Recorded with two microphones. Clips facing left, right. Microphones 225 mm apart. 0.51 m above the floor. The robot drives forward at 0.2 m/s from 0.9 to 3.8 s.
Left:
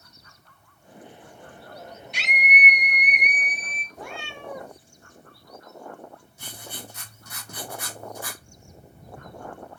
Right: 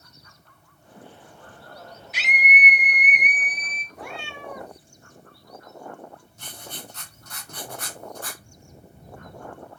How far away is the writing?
About 1.4 m.